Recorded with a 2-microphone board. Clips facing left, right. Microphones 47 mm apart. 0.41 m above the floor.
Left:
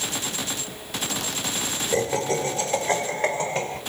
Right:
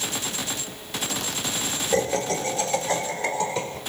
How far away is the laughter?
About 1.7 m.